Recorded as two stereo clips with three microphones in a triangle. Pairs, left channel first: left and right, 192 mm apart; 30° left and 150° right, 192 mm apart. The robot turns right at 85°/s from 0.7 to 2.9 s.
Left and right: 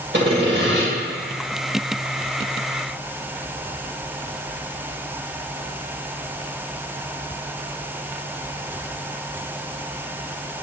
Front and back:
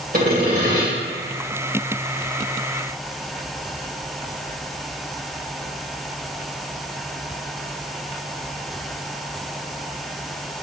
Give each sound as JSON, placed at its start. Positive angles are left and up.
{"t": 0.1, "sound": "sawing", "azimuth_deg": -110, "distance_m": 2.5}